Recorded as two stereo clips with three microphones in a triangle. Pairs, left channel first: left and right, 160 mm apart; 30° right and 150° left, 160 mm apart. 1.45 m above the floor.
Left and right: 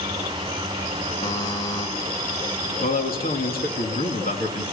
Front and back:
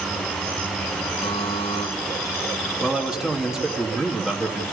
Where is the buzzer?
20° left, 1.5 m.